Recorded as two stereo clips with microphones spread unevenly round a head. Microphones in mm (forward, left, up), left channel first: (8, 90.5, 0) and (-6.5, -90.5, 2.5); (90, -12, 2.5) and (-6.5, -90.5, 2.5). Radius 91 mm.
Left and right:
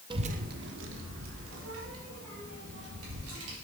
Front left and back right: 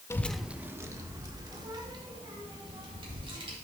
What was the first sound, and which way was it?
A child speaking, 30° right.